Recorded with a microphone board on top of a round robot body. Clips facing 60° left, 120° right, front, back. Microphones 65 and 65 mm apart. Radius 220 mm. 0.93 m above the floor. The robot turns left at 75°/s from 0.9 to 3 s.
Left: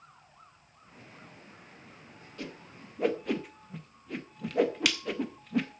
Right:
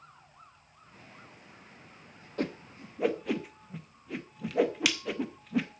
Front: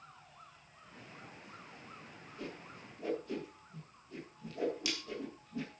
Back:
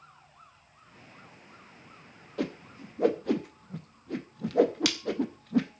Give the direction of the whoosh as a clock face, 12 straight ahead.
5 o'clock.